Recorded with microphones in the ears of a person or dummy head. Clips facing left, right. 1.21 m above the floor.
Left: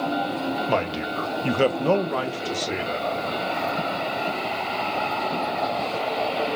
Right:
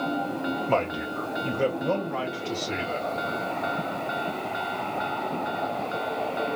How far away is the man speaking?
About 0.6 m.